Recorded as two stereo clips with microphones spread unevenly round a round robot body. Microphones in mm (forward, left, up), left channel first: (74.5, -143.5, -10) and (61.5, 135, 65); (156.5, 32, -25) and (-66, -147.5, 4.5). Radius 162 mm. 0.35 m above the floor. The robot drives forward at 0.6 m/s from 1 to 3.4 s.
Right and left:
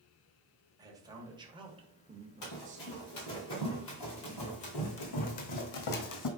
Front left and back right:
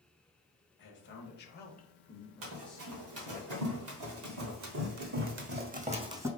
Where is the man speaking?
5° left, 1.3 m; by 3.4 s 160° left, 0.9 m.